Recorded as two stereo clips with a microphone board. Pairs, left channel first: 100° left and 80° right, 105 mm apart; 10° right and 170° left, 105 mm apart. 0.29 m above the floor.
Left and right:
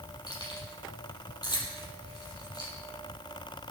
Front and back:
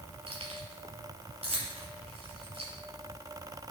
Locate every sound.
0.3 s keys jangling: 145° left, 4 m